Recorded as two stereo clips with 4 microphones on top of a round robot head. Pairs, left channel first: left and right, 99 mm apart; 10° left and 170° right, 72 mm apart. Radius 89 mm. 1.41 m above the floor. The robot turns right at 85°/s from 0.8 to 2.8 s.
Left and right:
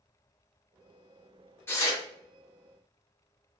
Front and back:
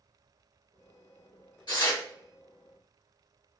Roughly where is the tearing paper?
Ahead left.